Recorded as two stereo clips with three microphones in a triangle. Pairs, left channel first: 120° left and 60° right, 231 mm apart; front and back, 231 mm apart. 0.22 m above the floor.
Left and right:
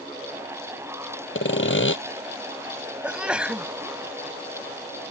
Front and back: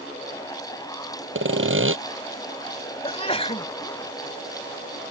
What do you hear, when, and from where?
1.4 s sawing: 150° left
3.0 s a sneeze: 20° left